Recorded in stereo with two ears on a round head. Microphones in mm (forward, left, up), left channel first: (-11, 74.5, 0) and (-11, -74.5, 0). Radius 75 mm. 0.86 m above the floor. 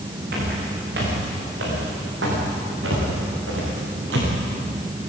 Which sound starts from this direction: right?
Footsteps, at 0.3 s.